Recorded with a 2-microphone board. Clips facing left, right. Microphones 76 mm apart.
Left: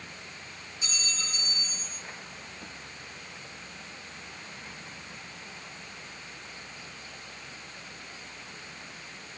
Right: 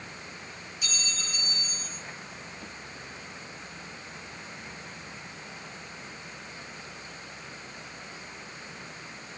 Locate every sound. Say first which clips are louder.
0.8 s a clink: even; 30° left (ahead or behind), 6.5 m